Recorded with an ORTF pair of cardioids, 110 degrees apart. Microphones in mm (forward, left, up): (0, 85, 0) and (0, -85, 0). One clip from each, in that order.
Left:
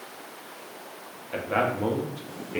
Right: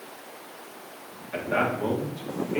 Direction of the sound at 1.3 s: 20° left.